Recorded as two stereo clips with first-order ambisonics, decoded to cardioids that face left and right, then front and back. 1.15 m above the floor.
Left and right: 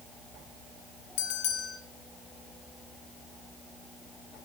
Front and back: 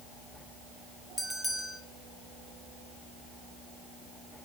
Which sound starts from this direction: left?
A bell, at 1.2 s.